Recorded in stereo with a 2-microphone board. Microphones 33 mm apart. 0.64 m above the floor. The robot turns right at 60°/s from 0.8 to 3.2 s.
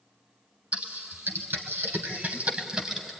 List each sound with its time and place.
0.7 s typing on a keyboard: 40° right (ahead or behind), 2 m; by 3.1 s 5° right (ahead or behind), 2 m